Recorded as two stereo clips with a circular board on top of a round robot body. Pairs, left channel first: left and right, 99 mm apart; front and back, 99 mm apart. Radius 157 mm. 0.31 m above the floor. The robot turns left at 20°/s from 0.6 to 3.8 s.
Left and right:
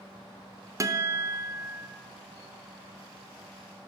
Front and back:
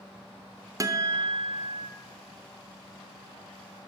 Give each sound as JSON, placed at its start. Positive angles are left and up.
{"t": 0.8, "sound": "a guitar", "azimuth_deg": -135, "distance_m": 0.6}